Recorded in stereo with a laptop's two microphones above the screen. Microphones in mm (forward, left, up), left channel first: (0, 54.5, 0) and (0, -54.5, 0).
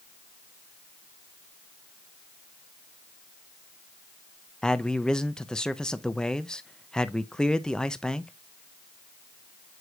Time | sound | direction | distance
4.6 | a man speaking | 5° left (ahead or behind) | 0.6 m